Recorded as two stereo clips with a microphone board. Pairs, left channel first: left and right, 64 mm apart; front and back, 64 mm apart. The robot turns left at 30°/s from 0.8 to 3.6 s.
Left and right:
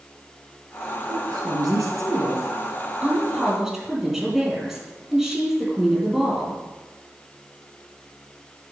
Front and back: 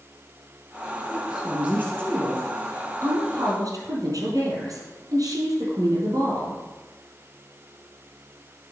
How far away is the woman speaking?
About 3.5 m.